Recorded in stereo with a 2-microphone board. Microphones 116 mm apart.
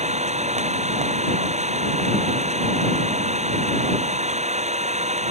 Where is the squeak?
No squeak in this recording.